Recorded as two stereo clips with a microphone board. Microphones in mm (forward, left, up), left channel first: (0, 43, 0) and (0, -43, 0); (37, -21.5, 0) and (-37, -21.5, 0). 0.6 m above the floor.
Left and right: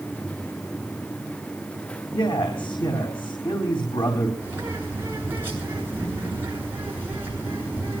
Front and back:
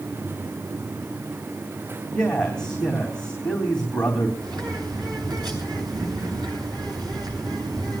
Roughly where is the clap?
No clap in this recording.